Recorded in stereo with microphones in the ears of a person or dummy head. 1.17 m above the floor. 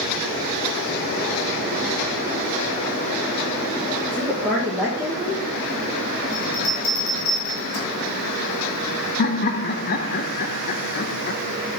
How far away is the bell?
About 2.5 m.